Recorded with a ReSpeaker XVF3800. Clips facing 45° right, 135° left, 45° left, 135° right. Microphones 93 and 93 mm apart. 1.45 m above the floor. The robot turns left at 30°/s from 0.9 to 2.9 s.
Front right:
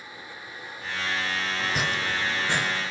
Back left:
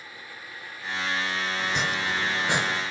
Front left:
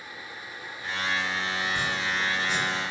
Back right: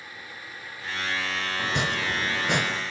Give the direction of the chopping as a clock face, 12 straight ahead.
4 o'clock.